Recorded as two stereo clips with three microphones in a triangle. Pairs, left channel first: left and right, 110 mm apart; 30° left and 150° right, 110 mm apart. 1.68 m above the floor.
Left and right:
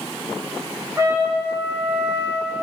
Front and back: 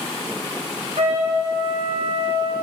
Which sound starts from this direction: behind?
A trumpet, at 1.0 s.